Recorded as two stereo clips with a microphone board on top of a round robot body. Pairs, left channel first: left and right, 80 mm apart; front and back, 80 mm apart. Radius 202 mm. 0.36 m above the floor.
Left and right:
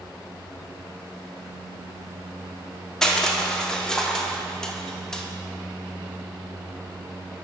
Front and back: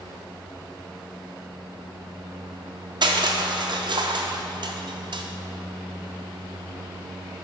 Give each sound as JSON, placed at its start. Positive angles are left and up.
{"t": 3.0, "sound": "crushing", "azimuth_deg": 175, "distance_m": 0.7}